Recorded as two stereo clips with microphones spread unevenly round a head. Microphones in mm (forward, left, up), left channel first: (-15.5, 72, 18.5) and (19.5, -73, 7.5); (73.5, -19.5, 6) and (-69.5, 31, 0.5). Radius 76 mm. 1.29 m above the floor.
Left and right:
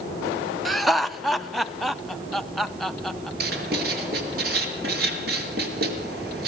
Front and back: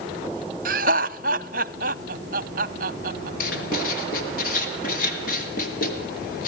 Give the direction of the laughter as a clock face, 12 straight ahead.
6 o'clock.